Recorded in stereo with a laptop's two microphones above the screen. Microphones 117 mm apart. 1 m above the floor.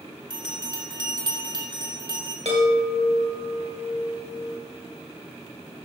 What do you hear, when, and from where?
0.3 s a bell: 40° right (ahead or behind), 1.9 m
2.5 s a chime: 65° right (ahead or behind), 2 m